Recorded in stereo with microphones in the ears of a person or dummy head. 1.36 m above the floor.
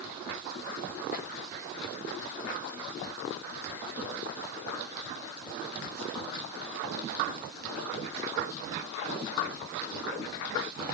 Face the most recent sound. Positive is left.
No sound to turn to.